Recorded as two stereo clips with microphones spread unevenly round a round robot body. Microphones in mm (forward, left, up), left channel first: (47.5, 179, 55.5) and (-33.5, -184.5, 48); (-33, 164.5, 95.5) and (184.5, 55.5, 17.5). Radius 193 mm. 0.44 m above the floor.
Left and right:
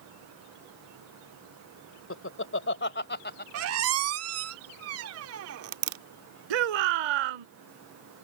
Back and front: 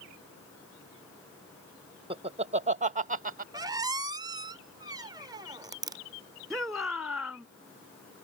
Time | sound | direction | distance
2.1 | laughter | 25° left | ?
3.5 | a squeak | 70° right | ?
6.5 | a shout | 115° right | ?